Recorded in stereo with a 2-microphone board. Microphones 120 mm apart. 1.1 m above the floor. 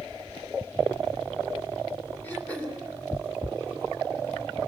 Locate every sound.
2.2 s throat clearing: 15° left (ahead or behind), 3 m